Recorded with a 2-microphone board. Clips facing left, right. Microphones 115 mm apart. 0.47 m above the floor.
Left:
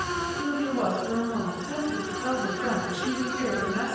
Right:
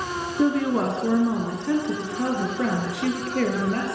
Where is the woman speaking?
80° right, 6.5 m; by 4.0 s 65° right (ahead or behind), 9.5 m.